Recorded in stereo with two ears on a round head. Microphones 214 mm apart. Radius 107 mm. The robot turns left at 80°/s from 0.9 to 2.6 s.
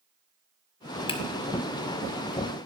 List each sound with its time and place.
1.1 s a finger snap: 20° left (ahead or behind), 0.9 m; by 1.2 s 30° left (ahead or behind), 0.9 m